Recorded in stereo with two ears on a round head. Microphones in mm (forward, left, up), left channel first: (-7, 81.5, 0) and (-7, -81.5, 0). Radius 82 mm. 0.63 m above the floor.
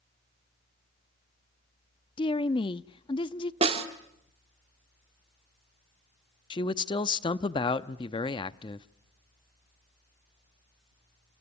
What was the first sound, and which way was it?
A woman speaking, 30° left (ahead or behind).